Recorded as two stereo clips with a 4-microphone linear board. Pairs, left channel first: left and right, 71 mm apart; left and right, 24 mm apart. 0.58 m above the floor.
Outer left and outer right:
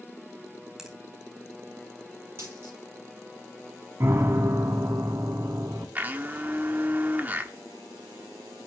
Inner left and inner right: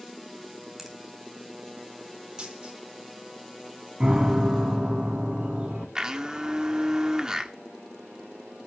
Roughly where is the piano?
Right.